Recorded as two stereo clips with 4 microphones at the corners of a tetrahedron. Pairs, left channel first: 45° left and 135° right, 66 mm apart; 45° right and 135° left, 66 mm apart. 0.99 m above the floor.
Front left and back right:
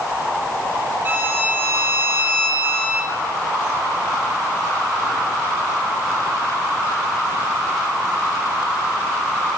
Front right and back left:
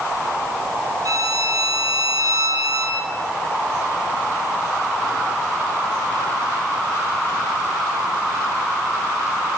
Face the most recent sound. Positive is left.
turn(degrees=160)